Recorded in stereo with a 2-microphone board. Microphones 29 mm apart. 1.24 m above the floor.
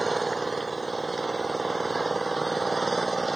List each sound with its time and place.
0.0 s an engine running: 5° left (ahead or behind)